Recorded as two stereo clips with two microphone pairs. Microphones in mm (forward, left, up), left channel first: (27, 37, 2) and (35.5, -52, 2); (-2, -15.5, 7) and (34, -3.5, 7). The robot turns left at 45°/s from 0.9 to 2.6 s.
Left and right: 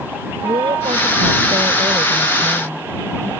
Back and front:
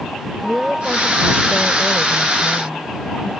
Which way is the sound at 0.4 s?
70° right.